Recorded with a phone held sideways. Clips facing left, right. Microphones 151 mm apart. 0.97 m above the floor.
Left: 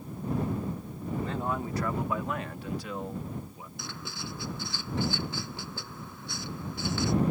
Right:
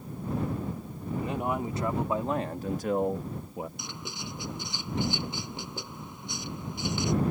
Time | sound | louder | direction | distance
1.2 | a man speaking | right 2 dB | 15° right (ahead or behind) | ?
3.8 | writing | even | 20° right (ahead or behind) | ?